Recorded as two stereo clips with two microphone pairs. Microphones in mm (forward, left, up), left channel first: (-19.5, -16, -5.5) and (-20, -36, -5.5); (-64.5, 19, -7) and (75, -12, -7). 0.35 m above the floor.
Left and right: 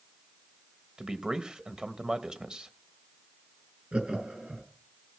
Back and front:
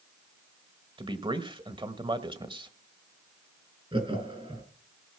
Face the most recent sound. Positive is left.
turn(degrees=-65)